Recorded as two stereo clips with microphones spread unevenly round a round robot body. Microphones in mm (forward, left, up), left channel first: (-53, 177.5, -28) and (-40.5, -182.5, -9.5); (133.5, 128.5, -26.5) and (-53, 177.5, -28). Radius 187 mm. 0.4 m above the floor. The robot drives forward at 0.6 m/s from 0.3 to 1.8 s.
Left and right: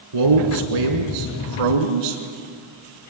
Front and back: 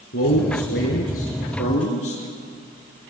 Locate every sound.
0.1 s a man speaking: 65° right, 3.5 m; by 2.2 s 80° right, 3.5 m